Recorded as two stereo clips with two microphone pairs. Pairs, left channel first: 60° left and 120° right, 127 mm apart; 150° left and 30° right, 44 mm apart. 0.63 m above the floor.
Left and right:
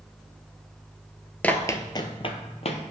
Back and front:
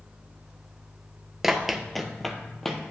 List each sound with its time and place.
1.4 s running footsteps: 35° left, 0.6 m; by 2.8 s 60° left, 1.0 m